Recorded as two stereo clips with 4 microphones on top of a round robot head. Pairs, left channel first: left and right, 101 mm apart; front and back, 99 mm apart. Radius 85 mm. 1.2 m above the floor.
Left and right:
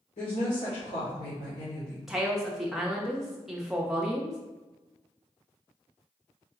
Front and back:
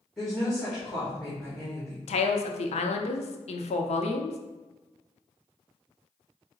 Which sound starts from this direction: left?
A woman speaking, at 0.2 s.